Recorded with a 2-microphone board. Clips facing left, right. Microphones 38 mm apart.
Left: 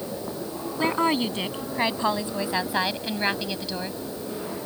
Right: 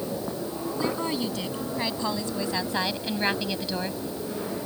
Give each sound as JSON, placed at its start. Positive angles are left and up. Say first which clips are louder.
{"t": 0.8, "sound": "a woman speaking", "louder": "left 6 dB", "side_deg": 50}